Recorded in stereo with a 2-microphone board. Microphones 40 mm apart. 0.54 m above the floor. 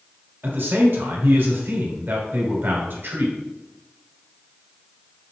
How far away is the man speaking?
About 2 m.